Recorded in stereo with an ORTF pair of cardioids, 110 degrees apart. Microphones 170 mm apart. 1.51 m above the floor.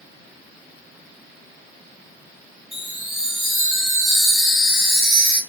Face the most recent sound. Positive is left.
turn(degrees=0)